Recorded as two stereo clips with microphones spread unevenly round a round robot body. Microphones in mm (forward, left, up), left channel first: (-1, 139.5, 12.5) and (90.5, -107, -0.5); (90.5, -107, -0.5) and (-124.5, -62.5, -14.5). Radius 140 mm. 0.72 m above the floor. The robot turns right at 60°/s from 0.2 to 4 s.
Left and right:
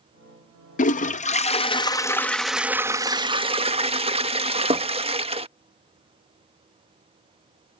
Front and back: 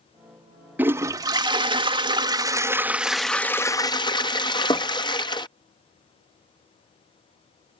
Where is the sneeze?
No sneeze in this recording.